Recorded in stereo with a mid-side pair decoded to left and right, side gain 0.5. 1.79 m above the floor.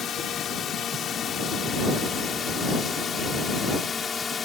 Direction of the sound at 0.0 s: 55° left.